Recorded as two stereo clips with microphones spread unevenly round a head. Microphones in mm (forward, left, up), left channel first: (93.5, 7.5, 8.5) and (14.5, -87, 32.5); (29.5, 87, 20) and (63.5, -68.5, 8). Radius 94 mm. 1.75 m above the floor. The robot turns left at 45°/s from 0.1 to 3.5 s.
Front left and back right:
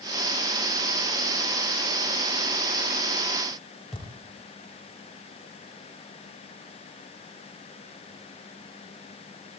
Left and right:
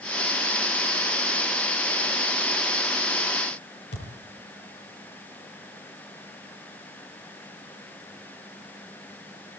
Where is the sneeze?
I don't hear a sneeze.